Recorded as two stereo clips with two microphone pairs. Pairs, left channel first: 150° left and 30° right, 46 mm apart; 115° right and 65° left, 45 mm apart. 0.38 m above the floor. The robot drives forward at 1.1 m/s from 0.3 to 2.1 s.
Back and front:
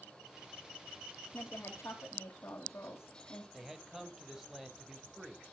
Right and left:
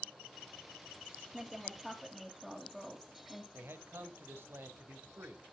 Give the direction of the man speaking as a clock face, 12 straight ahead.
10 o'clock.